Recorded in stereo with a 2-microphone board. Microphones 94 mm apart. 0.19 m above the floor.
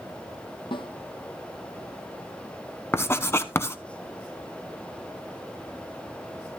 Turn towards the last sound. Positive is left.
turn(degrees=25)  # may be behind; listen again after turning